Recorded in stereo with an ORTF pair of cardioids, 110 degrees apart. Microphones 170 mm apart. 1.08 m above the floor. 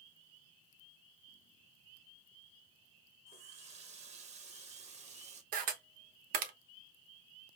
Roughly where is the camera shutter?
Ahead right.